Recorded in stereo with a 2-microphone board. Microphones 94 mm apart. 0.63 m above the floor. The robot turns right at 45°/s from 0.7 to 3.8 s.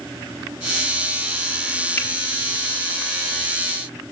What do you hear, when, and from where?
2.0 s a finger snap: 20° left (ahead or behind), 1.3 m; by 2.1 s 25° left (ahead or behind), 1.3 m